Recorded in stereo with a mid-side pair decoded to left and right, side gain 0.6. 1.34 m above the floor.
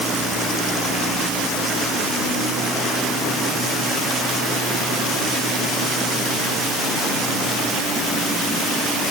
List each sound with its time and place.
Only background noise.